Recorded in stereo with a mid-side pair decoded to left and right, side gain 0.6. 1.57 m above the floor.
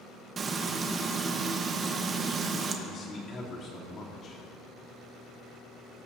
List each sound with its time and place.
0.4 s frying: 35° right, 1.3 m
2.9 s a man speaking: 40° left, 3.5 m